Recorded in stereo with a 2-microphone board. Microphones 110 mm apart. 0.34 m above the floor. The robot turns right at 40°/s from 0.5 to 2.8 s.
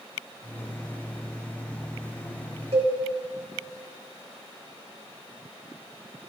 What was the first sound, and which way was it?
A cowbell, 70° right (ahead or behind).